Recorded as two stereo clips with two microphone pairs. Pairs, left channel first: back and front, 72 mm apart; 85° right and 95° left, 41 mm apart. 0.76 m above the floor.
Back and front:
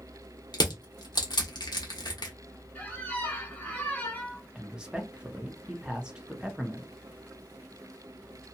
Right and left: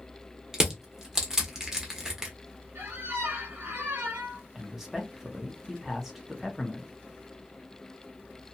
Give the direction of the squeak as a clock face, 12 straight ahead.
8 o'clock.